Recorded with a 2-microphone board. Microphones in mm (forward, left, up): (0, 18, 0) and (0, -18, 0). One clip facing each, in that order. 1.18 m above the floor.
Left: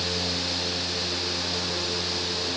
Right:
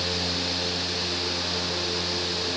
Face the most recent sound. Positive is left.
No sound to turn to.